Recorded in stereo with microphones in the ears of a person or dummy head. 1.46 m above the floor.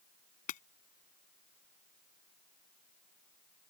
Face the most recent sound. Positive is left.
turn(degrees=45)  # may be behind; listen again after turning